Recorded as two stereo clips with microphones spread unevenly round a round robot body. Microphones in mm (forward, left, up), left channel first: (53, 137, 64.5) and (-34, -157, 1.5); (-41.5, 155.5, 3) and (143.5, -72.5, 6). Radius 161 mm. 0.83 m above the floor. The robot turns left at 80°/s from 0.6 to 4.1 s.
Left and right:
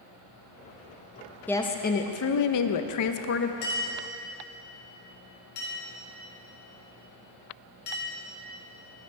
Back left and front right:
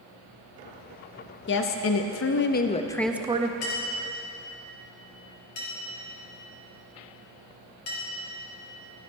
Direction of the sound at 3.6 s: 135° left.